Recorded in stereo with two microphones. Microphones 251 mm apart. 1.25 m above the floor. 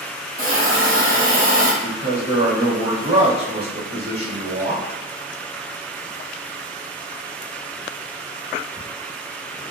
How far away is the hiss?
About 0.8 m.